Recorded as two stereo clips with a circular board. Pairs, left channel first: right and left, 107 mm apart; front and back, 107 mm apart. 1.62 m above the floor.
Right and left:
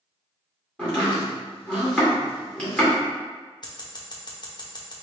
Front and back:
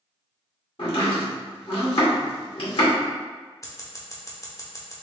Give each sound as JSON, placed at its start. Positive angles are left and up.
{"t": 0.8, "sound": "chopping", "azimuth_deg": -10, "distance_m": 1.9}
{"t": 3.6, "sound": "scissors", "azimuth_deg": -55, "distance_m": 0.8}